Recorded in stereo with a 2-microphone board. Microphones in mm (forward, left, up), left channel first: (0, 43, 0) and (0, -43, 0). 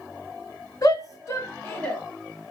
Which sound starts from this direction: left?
A shout, at 0.8 s.